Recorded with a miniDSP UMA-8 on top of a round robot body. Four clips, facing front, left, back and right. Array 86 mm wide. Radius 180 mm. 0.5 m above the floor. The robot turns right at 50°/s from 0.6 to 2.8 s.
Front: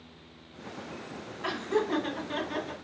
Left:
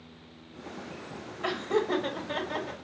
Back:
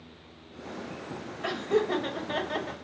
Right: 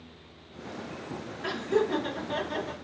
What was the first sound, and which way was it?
Laughter, 110° left.